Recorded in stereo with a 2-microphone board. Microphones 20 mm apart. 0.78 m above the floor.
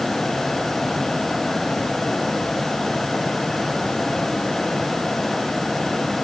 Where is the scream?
No scream in this recording.